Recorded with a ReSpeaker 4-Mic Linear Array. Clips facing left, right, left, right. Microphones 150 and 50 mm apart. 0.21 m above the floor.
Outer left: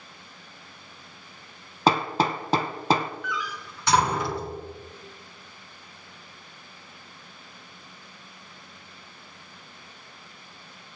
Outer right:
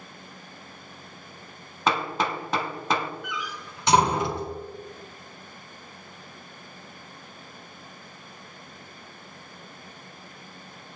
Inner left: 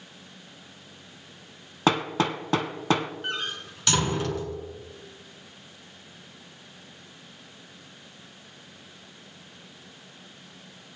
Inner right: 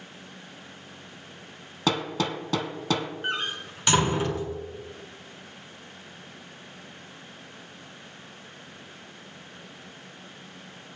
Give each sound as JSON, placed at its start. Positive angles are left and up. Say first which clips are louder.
{"t": 1.9, "sound": "hammering", "louder": "outer left 3 dB, inner left 3 dB", "side_deg": 35, "distance_m": 0.7}
{"t": 3.2, "sound": "a door slam", "louder": "outer left 2 dB, inner right 2 dB", "side_deg": -20, "distance_m": 1.8}